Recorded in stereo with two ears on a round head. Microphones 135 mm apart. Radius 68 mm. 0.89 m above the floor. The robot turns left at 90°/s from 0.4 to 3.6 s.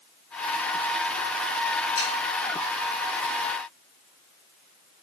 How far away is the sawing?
About 4.5 m.